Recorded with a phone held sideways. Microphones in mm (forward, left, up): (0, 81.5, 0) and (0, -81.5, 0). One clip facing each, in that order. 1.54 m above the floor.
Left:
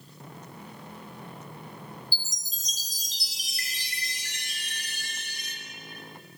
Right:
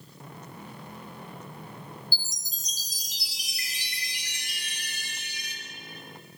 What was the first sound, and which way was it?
A chime, 10° right (ahead or behind).